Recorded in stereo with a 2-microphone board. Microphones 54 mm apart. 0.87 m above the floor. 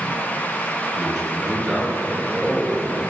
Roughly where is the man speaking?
Centre.